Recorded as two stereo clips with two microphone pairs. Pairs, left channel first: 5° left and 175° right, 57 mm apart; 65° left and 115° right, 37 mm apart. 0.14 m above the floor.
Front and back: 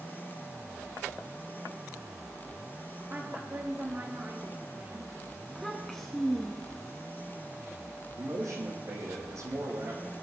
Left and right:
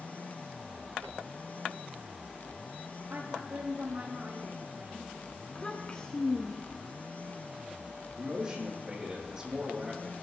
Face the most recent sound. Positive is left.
turn(degrees=175)